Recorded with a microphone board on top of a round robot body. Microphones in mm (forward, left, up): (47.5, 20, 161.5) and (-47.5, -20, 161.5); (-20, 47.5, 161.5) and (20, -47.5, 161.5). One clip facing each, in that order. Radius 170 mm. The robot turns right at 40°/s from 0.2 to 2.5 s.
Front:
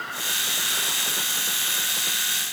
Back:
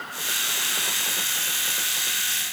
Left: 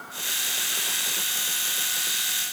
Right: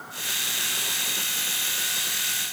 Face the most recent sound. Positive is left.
No sound to turn to.